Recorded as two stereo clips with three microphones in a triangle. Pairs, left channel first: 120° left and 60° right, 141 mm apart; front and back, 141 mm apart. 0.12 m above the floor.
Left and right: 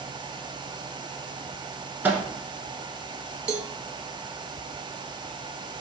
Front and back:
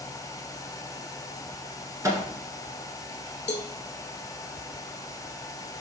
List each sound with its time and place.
2.0 s a microwave: 130° right, 1.1 m
3.5 s a cowbell: 30° right, 0.5 m